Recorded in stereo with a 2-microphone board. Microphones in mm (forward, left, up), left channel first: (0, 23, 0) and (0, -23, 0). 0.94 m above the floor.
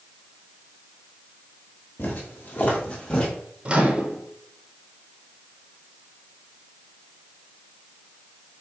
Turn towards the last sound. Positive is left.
turn(degrees=-25)  # may be behind; listen again after turning